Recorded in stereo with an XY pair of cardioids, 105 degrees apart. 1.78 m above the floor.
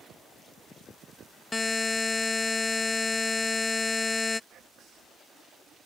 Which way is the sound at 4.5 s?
65° right.